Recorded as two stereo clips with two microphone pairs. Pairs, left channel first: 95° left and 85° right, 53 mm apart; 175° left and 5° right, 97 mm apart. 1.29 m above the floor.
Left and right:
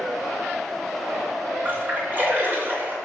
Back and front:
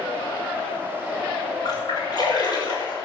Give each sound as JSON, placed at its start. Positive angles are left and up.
{"t": 1.6, "sound": "a splash", "azimuth_deg": -135, "distance_m": 5.0}